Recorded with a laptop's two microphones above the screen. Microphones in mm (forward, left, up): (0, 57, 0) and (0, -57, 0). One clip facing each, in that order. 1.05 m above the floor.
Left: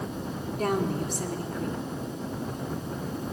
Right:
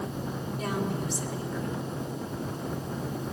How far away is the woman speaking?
About 3 m.